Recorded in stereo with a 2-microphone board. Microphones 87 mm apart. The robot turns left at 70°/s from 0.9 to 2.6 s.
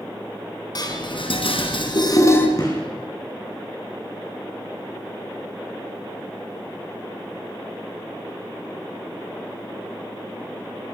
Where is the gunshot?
45° left (ahead or behind), 8 m.